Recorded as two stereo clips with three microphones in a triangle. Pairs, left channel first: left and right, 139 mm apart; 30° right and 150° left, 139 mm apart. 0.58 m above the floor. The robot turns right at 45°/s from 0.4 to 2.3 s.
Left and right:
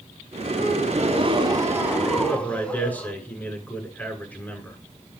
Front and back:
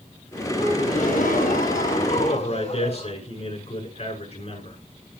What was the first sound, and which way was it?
A gasp, 70° right.